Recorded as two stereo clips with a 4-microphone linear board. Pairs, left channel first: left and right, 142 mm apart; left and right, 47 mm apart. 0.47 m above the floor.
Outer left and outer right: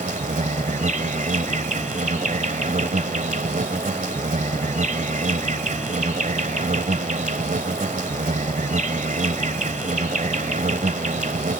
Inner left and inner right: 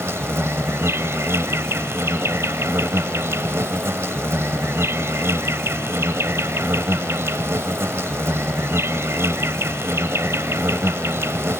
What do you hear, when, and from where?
0.0 s an insect: 70° right (ahead or behind)